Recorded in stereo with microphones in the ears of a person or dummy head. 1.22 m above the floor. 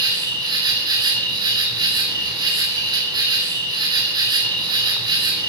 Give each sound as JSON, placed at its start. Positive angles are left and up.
{"t": 0.0, "sound": "an insect", "side_deg": -25, "distance_m": 4.5}